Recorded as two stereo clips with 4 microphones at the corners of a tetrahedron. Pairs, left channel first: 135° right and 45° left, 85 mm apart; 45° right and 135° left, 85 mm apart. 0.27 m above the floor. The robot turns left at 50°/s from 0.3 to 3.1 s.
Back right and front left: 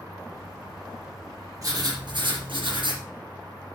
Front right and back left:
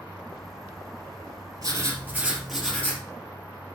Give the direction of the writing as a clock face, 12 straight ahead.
9 o'clock.